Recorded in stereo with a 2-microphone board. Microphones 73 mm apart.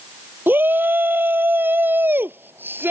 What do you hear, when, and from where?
0.5 s a shout: 30° right (ahead or behind)